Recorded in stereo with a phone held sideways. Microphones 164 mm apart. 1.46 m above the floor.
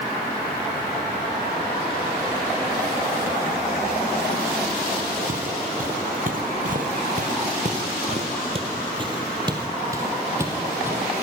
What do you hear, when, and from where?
5.3 s footsteps: 55° right (ahead or behind), 3 m; by 11.0 s 10° right (ahead or behind), 3.5 m